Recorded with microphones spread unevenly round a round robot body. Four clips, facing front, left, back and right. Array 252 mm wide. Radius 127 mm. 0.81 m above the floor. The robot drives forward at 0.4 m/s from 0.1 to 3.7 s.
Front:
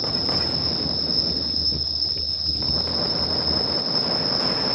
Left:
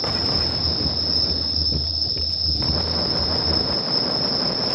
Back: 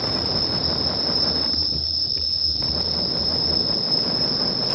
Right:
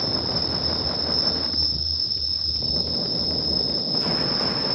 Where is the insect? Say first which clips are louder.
Left 2 dB, back 1 dB; 150° right, 1.1 m; by 4.8 s 170° right, 2.5 m.